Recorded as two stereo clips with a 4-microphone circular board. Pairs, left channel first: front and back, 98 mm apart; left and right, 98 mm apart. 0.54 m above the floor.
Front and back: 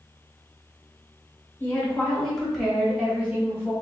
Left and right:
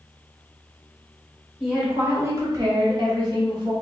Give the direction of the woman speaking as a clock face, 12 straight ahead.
1 o'clock.